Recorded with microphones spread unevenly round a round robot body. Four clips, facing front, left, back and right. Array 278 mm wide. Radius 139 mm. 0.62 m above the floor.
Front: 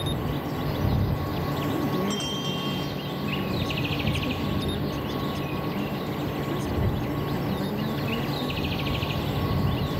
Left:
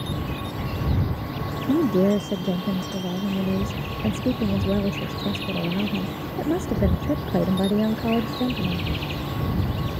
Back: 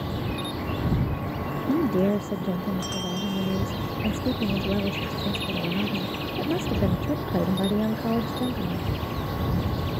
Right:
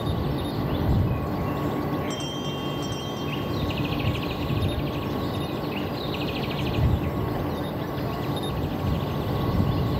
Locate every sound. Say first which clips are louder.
1.7 s a woman speaking: left 8 dB, back 8 dB; 110° left